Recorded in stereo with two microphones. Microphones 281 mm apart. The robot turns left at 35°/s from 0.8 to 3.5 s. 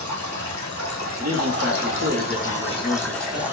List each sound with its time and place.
0.0 s running water: 85° left, 1.8 m; by 3.5 s 10° right, 1.8 m
1.2 s a man speaking: 70° left, 3 m; by 3.4 s 10° right, 3 m